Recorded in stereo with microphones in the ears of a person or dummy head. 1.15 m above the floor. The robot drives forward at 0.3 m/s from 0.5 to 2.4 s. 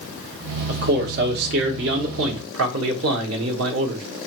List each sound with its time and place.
0.7 s a man speaking: 55° right (ahead or behind), 1.1 m; by 4.0 s 75° right (ahead or behind), 0.9 m